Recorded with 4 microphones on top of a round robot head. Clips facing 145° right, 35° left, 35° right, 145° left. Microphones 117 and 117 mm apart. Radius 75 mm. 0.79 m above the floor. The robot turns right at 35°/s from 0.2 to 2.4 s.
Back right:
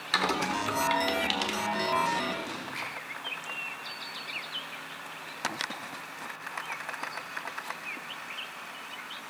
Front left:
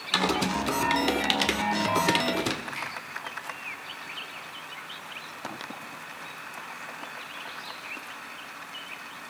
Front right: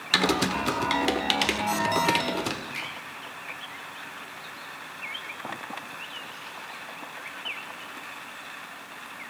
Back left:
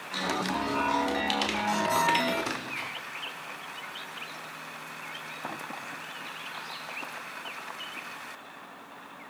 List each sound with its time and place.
0.1 s typing on a keyboard: 40° right, 1.3 m; by 2.6 s 35° left, 1.3 m
2.7 s a finger snap: 45° right, 9.5 m